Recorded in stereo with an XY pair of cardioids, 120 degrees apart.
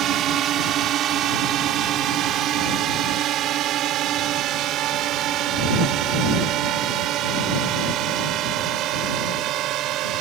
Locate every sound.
0.0 s a drone: 60° right; by 10.2 s 70° right